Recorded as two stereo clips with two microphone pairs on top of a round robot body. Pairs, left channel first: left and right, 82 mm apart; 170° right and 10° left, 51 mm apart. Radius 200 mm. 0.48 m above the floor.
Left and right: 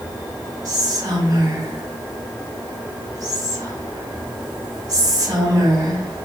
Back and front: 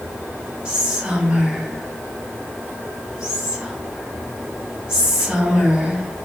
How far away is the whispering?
About 2 m.